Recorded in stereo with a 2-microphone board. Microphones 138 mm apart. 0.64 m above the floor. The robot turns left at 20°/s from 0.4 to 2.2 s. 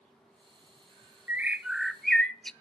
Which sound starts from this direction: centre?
A bird, at 1.3 s.